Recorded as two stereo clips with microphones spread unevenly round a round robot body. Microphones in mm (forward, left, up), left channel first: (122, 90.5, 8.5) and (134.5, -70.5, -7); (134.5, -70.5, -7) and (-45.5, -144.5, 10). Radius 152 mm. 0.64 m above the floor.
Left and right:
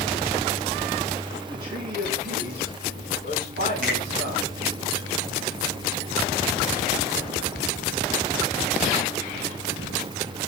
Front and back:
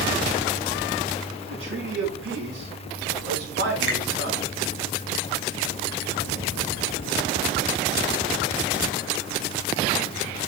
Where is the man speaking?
150° right, 6 m; by 4.5 s 130° right, 5 m.